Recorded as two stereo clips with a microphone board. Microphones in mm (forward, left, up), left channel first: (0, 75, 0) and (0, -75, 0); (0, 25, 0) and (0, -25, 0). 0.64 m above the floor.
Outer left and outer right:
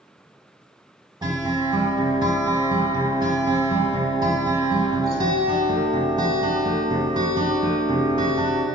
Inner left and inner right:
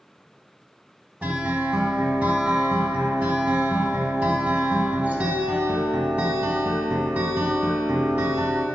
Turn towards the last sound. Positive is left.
turn(degrees=-30)  # may be behind; listen again after turning